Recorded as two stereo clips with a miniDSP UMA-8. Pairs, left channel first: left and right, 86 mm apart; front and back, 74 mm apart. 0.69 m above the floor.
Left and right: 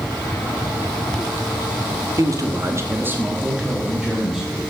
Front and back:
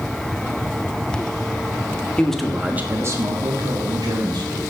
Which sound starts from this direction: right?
A man speaking, at 2.2 s.